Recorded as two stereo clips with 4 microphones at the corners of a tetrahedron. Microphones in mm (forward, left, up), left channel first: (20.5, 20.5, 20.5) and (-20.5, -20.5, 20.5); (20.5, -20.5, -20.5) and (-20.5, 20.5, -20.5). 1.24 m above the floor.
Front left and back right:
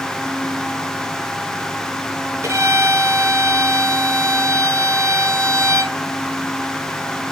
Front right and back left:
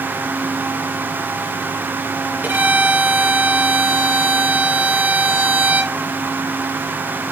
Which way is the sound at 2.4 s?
165° right.